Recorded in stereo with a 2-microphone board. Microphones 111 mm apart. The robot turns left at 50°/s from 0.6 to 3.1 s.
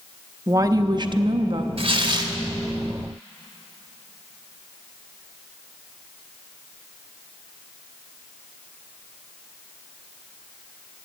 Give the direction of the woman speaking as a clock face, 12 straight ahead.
2 o'clock.